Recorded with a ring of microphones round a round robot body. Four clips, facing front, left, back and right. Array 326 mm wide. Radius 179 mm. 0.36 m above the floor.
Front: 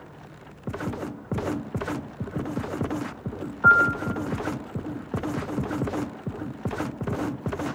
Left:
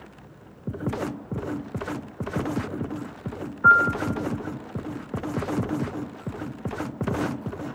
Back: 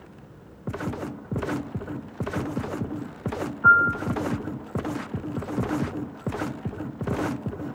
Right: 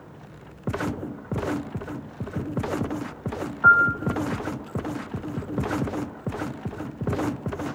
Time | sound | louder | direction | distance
3.6 | a piano | even, even | 50° right | 1.6 m